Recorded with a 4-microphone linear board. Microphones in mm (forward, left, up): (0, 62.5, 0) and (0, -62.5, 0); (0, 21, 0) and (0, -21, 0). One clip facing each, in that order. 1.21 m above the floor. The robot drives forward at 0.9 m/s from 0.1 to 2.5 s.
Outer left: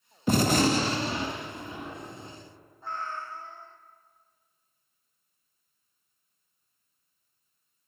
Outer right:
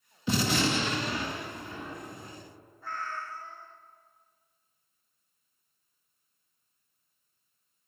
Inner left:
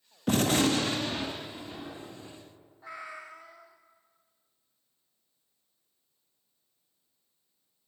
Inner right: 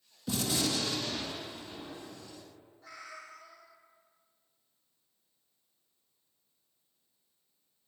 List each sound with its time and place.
0.3 s a gunshot: 50° left (ahead or behind), 0.7 m; by 2.4 s 15° left (ahead or behind), 2.0 m
2.8 s a cat meowing: 25° left (ahead or behind), 0.8 m